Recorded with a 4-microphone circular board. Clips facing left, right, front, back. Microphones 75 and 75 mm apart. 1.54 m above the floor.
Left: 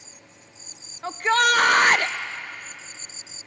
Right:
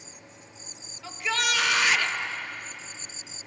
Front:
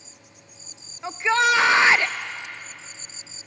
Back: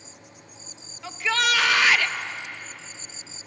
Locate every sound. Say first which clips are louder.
1.0 s a shout: left 9 dB, front 5 dB; 60° left, 0.5 m